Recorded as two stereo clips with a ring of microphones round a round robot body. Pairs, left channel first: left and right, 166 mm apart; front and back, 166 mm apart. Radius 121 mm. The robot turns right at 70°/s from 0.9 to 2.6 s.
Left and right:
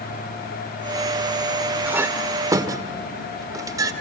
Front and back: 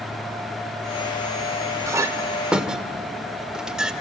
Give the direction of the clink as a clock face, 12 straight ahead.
5 o'clock.